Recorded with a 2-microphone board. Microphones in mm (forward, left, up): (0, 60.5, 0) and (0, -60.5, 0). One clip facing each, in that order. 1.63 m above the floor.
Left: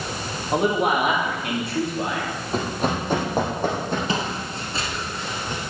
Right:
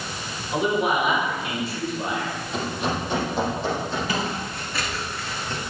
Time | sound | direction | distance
0.5 | a man speaking | 50° left (ahead or behind) | 2.5 m
2.5 | running footsteps | 40° left (ahead or behind) | 3 m
4.1 | footsteps | 25° left (ahead or behind) | 2 m